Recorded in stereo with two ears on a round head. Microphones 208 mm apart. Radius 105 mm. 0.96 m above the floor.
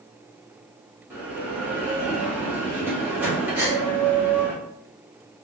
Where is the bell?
10° right (ahead or behind), 0.8 m.